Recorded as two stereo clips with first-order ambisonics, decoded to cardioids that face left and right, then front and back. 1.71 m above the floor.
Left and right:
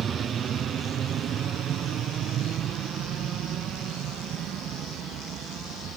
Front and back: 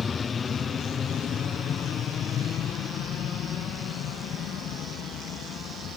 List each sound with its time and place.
0.0 s an aircraft: 55° right; by 6.0 s 45° right